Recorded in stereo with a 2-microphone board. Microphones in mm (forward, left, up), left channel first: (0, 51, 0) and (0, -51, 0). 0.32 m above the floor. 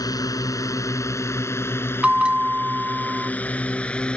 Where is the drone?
40° left (ahead or behind); by 4.2 s 10° left (ahead or behind).